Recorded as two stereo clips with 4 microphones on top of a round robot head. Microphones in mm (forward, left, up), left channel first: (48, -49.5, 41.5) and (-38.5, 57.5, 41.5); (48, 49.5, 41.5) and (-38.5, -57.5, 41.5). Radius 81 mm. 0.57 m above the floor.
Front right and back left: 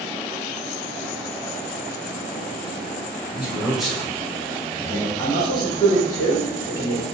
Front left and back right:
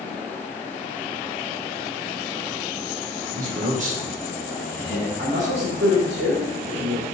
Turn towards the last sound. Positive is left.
turn(degrees=-110)